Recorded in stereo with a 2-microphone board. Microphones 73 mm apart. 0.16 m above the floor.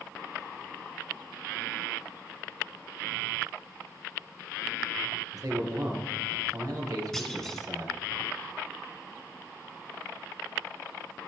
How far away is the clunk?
About 1.8 m.